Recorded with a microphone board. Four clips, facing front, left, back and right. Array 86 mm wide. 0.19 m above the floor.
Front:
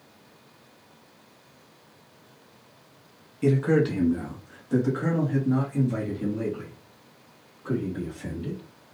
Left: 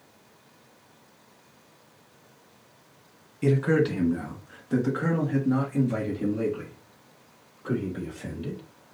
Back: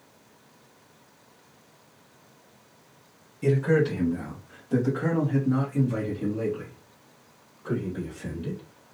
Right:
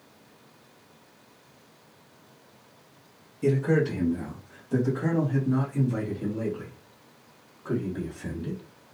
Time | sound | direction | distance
3.4 | a man speaking | 65° left | 1.4 m